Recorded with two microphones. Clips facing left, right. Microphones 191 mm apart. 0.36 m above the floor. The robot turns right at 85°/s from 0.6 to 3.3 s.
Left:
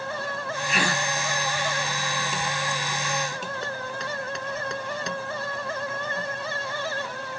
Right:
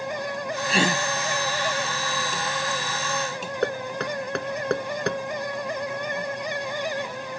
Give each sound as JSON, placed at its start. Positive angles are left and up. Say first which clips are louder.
{"t": 0.7, "sound": "a gasp", "louder": "right 4 dB", "side_deg": -35}
{"t": 3.6, "sound": "knocking", "louder": "right 6 dB", "side_deg": -65}